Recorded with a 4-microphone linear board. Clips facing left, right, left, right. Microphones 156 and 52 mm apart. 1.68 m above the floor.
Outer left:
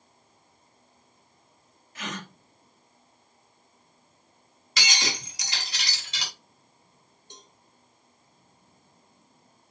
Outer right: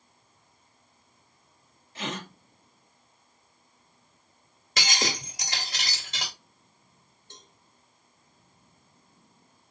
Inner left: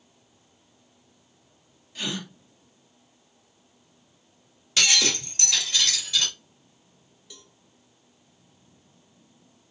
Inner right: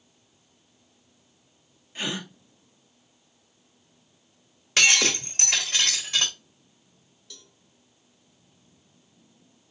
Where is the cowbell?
15° left (ahead or behind), 1.1 m.